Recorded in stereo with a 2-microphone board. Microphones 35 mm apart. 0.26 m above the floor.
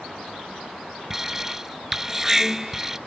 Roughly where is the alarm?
Centre.